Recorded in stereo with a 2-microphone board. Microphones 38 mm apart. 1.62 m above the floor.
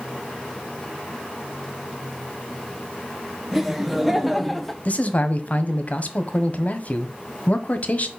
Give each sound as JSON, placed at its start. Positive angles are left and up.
{"t": 3.5, "sound": "laughter", "side_deg": -5, "distance_m": 1.9}
{"t": 4.8, "sound": "a man speaking", "side_deg": 45, "distance_m": 1.0}